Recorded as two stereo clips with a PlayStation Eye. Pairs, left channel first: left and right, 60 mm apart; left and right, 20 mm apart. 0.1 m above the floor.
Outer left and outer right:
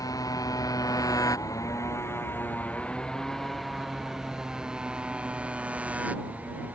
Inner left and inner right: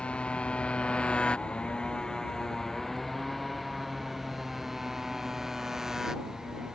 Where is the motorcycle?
80° left; by 6.8 s 25° right (ahead or behind).